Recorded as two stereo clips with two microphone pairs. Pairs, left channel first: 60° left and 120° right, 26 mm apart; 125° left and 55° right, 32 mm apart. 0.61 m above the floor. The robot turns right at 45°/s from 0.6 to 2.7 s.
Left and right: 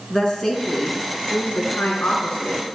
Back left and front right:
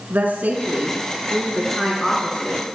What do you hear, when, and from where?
0.1 s a woman speaking: 20° right, 6 m; by 2.7 s 75° left, 6 m